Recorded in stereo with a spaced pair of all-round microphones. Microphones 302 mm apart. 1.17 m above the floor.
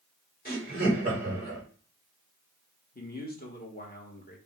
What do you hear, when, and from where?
0.5 s laughter: 30° left (ahead or behind), 3 m
3.0 s a man speaking: 30° left (ahead or behind), 1.3 m